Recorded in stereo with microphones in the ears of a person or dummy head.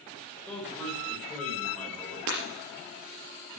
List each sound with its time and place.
0.5 s a man speaking: 5° left (ahead or behind), 6.5 m
2.3 s breaking glass: 65° right (ahead or behind), 4 m